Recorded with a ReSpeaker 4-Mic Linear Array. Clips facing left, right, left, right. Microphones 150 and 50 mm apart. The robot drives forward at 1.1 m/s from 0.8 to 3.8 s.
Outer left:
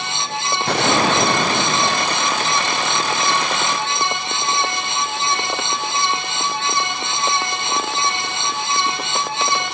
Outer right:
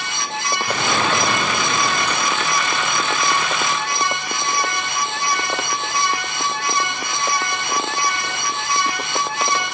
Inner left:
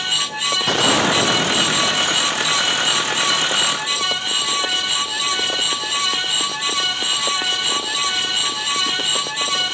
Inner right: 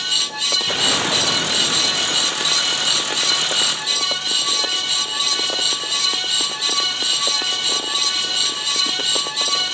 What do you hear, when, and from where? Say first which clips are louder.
0.7 s a gunshot: outer left 5 dB, inner left 5 dB; 75° left (ahead or behind), 1.6 m; by 2.9 s 35° left (ahead or behind), 2.5 m